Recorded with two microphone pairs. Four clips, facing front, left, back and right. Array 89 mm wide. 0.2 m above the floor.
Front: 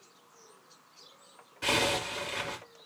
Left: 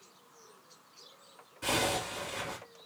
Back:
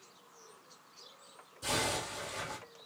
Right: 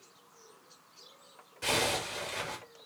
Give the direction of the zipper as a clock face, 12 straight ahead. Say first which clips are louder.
Even, front 5 dB; 1 o'clock.